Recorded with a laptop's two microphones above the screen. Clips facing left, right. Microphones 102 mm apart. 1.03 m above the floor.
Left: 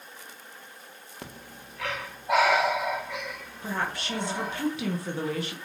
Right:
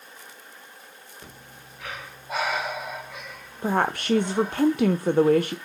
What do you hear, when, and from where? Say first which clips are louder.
1.2 s breathing: left 3 dB; 70° left (ahead or behind), 1.9 m
3.6 s a woman speaking: right 8 dB; 50° right (ahead or behind), 0.6 m